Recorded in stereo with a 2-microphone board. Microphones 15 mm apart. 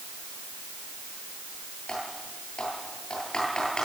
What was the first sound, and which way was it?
Typing on a keyboard, 55° left (ahead or behind).